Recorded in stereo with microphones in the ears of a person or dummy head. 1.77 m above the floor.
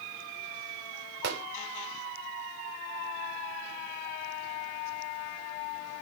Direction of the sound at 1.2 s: 65° right (ahead or behind).